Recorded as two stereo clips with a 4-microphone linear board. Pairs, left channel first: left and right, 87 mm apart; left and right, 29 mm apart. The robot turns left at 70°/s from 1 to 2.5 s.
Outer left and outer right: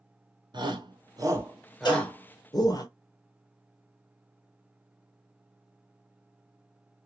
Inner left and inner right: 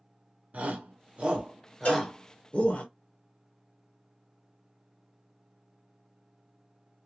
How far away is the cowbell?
About 1.1 m.